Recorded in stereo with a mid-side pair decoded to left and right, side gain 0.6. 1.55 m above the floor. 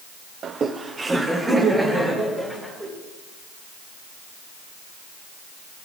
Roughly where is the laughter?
Ahead right.